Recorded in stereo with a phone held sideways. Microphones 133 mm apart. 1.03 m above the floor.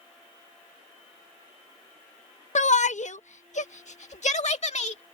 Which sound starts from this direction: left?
A shout, at 2.5 s.